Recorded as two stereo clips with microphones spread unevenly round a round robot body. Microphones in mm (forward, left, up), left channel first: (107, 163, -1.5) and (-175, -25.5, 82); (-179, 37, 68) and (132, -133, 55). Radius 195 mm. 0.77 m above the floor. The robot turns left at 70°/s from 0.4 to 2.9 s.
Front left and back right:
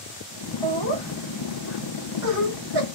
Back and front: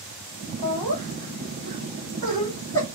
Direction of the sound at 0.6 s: 20° left.